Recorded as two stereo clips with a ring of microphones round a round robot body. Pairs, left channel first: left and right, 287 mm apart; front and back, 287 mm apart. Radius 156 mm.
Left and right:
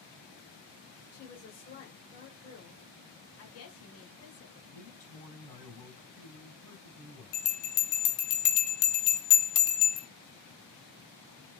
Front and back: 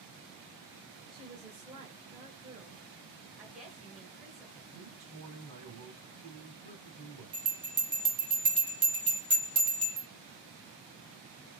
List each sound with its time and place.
1.1 s a woman speaking: 120° left, 1.2 m
3.4 s a woman speaking: 90° left, 1.4 m
4.7 s a man speaking: 155° left, 2.5 m
7.3 s a bell: 105° left, 0.9 m